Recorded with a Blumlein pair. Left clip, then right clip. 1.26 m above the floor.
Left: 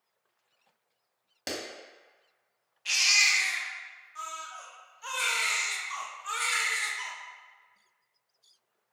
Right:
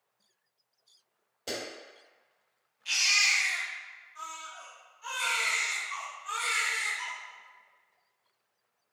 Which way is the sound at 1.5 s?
50° left.